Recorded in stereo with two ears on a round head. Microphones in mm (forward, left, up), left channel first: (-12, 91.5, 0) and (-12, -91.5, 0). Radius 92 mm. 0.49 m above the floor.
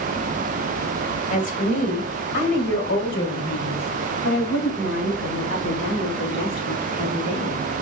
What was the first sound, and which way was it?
A woman speaking, 40° left (ahead or behind).